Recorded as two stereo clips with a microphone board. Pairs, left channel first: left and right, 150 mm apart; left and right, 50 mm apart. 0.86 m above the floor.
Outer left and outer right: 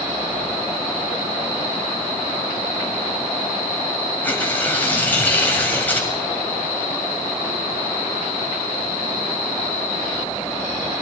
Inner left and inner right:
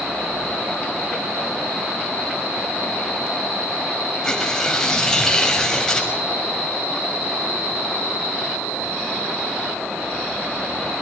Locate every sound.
4.2 s tearing paper: 15° left (ahead or behind), 6.5 m